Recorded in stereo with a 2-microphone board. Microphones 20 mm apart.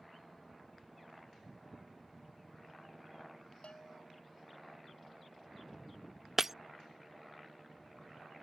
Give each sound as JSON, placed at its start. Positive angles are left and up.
{"t": 3.6, "sound": "a bell", "side_deg": 65}
{"t": 6.4, "sound": "breaking glass", "side_deg": -15}